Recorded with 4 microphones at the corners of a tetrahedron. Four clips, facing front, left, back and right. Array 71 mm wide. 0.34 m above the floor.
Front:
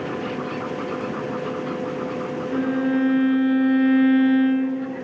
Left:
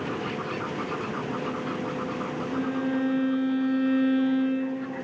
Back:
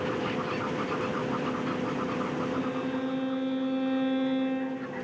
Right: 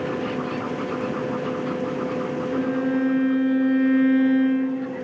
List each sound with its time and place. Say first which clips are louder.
2.5 s a violin: right 4 dB, front 9 dB; 15° right, 0.7 m